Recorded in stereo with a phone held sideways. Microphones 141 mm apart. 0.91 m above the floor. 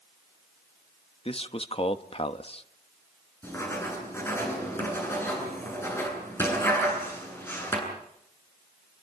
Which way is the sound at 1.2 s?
40° left (ahead or behind).